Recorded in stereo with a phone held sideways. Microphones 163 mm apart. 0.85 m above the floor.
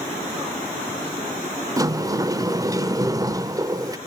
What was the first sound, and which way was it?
A sliding door, 20° right (ahead or behind).